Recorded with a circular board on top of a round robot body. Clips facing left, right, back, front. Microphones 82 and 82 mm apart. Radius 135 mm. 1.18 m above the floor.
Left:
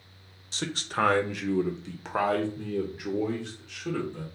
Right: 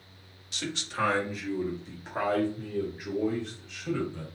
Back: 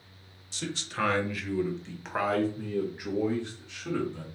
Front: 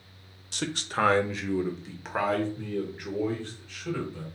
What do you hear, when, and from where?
0.5 s a man speaking: 30° left, 0.8 m; by 4.2 s 110° left, 2.0 m